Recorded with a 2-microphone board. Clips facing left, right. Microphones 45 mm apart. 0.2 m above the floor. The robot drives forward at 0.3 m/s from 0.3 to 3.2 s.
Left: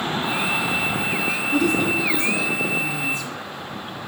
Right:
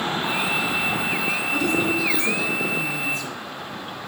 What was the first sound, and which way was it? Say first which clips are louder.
A woman speaking: left 3 dB; 5° left (ahead or behind).